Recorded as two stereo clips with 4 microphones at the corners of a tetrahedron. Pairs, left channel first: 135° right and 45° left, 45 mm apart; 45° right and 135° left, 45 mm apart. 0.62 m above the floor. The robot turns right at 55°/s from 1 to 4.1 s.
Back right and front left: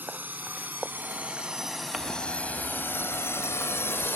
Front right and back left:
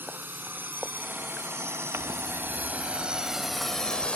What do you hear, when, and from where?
0.0 s a drone: 95° left; by 4.2 s 110° right
1.9 s crumpling: 125° left; by 4.2 s 115° right